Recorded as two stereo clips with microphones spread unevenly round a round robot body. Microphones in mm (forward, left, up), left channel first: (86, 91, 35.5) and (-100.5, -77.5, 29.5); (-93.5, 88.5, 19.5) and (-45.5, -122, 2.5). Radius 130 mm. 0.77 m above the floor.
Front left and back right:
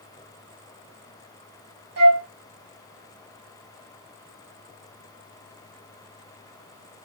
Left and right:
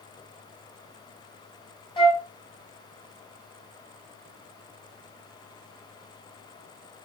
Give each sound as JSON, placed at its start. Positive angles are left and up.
{"t": 2.0, "sound": "a flute", "azimuth_deg": 170, "distance_m": 2.0}